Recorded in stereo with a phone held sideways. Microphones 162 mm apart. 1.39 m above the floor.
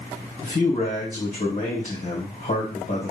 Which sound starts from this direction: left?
A man speaking, at 0.4 s.